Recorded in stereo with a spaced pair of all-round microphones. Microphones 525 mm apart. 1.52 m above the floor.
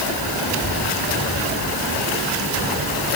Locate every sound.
Only background noise.